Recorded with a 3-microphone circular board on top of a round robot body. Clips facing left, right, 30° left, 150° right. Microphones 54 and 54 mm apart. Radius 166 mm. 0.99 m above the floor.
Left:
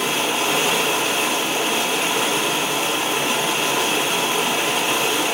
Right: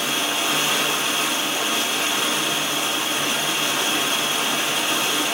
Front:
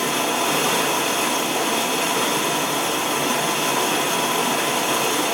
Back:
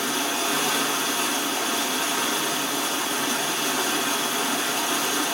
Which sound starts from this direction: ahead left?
Running water, at 0.0 s.